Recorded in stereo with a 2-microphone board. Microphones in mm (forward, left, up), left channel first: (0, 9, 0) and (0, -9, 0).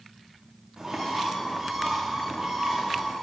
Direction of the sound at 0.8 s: 5° right (ahead or behind).